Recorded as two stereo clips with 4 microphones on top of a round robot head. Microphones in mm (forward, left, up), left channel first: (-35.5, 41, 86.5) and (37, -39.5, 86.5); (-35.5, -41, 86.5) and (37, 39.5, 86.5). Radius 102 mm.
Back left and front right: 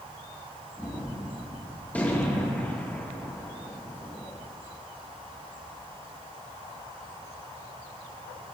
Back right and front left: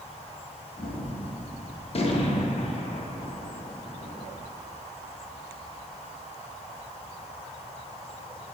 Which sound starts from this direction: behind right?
A gunshot, at 0.8 s.